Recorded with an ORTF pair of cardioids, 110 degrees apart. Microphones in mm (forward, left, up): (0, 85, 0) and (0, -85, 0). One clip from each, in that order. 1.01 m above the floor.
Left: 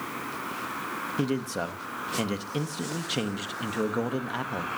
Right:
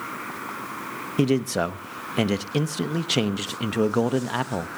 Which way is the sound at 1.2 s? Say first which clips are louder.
Right 10 dB; 30° right.